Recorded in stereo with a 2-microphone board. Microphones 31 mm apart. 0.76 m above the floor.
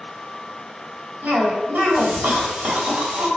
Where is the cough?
65° right (ahead or behind), 1.3 m.